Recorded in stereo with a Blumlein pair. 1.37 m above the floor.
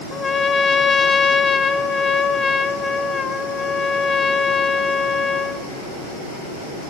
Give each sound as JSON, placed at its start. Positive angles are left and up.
{"t": 0.1, "sound": "a trumpet", "azimuth_deg": 15, "distance_m": 0.6}